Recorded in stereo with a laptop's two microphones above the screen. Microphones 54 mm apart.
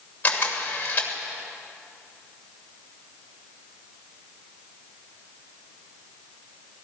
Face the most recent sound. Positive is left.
turn(degrees=30)  # may be behind; listen again after turning